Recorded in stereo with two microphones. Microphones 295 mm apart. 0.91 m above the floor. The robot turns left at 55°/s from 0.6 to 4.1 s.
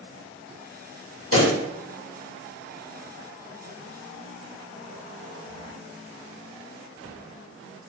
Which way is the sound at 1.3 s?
55° left (ahead or behind).